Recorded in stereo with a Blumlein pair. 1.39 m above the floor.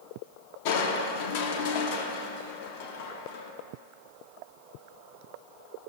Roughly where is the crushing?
Ahead left.